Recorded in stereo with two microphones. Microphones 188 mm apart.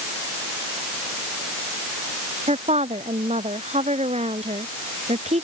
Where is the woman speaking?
40° right (ahead or behind).